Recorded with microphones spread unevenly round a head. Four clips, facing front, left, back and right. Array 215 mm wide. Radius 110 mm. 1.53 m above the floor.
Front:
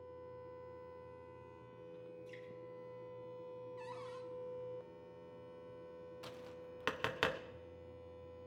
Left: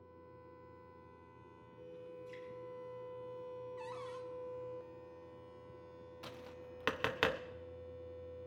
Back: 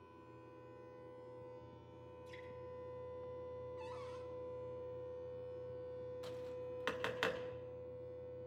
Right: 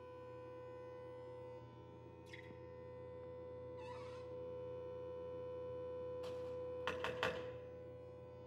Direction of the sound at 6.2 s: 70° left.